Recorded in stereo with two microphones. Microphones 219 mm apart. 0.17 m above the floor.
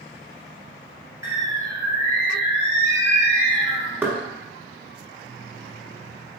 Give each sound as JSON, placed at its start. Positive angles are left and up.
{"t": 1.2, "sound": "a bird", "side_deg": -15, "distance_m": 1.0}
{"t": 4.0, "sound": "knocking", "side_deg": -10, "distance_m": 0.8}